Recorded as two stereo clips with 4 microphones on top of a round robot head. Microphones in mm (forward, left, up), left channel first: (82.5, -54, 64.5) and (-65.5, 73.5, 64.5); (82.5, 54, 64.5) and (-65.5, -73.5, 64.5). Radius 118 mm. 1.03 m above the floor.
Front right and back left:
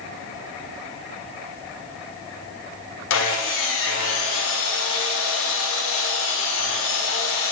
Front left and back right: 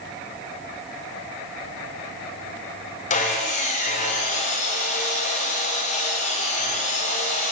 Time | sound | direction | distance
3.1 | sawing | 15° right | 1.6 m